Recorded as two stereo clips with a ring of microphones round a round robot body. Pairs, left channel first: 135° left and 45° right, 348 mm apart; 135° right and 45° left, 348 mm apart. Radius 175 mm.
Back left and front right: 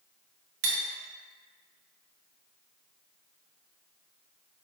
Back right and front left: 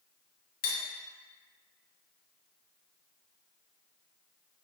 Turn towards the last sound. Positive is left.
turn(degrees=-70)